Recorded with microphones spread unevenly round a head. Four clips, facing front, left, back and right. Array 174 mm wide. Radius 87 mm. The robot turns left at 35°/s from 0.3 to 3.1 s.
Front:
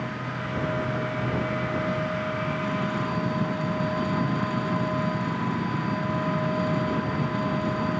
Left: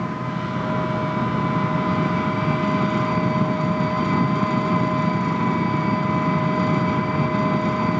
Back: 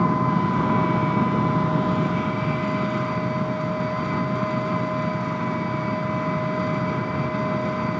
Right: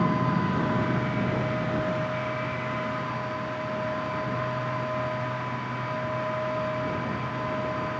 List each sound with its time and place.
0.0 s an engine running: 175° right; by 8.0 s 90° left